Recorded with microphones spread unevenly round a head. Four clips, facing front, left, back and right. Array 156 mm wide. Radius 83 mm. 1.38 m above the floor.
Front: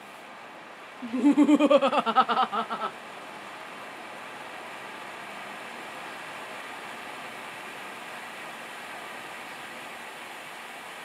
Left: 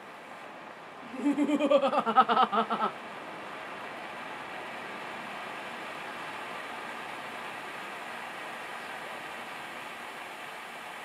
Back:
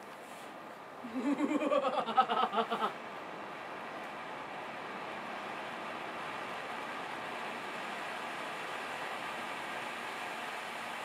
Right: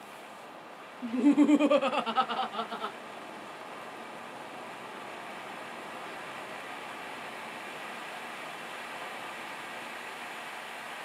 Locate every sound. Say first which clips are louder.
1.0 s laughter: right 5 dB, front 13 dB; 25° right, 0.9 m; by 3.0 s 80° left, 0.7 m